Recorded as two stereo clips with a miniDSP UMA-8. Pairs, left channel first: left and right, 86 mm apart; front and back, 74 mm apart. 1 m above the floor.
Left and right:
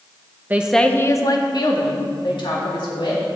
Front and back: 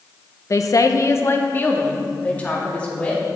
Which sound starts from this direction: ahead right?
A woman speaking, at 0.5 s.